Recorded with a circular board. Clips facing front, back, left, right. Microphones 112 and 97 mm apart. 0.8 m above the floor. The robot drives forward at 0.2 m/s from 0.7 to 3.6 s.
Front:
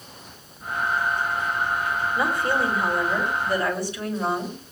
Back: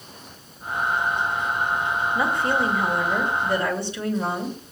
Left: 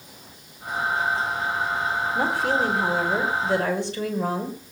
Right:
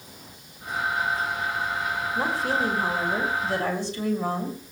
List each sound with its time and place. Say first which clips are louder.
2.1 s a woman speaking: even, left 2 dB; 110° left, 5.5 m; by 4.6 s 115° left, 5.5 m